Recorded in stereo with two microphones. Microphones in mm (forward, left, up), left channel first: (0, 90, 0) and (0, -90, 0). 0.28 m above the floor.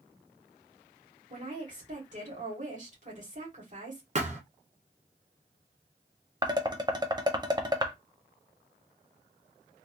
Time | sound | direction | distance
1.3 | a woman speaking | 45° right (ahead or behind) | 2.5 m
4.2 | a thud | 40° right (ahead or behind) | 1.3 m
6.4 | dishes clattering | 25° right (ahead or behind) | 0.7 m